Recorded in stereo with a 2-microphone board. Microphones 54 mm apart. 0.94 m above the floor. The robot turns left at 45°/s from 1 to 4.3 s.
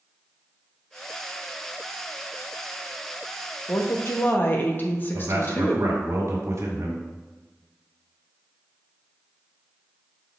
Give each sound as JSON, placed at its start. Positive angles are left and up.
{"t": 3.7, "sound": "a woman speaking", "side_deg": 60, "distance_m": 1.1}
{"t": 5.1, "sound": "a man speaking", "side_deg": -70, "distance_m": 2.0}